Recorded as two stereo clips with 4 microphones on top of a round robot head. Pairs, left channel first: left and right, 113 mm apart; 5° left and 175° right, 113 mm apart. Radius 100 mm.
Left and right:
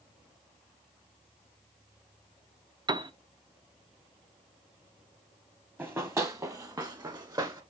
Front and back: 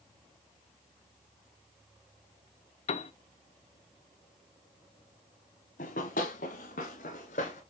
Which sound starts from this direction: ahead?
Running footsteps, at 5.8 s.